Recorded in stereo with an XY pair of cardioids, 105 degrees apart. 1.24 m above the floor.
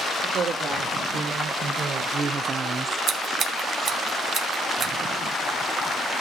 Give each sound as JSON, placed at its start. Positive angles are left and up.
{"t": 0.2, "sound": "a woman speaking", "azimuth_deg": -55, "distance_m": 3.5}
{"t": 3.1, "sound": "scissors", "azimuth_deg": -70, "distance_m": 1.7}